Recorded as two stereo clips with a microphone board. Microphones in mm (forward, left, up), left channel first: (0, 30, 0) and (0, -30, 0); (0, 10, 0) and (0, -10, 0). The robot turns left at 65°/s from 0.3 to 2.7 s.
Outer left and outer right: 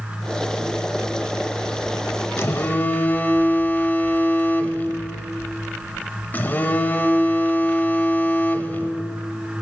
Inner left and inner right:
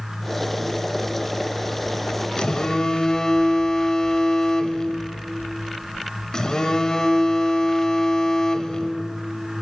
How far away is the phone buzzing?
About 1.0 m.